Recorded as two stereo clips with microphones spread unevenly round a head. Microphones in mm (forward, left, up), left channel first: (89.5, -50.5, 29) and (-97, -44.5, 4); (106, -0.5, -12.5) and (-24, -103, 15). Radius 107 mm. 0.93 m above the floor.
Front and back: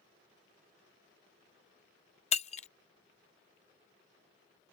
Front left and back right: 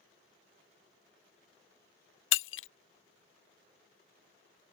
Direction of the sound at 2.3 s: 60° left.